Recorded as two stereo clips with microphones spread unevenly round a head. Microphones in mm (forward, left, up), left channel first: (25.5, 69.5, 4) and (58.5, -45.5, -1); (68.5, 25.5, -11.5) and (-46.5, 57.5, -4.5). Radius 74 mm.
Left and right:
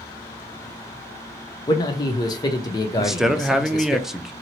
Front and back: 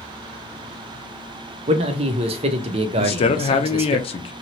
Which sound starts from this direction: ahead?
A man speaking, at 3.0 s.